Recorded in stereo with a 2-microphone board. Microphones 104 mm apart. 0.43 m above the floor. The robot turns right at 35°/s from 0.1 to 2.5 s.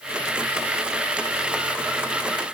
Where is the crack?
I don't hear a crack.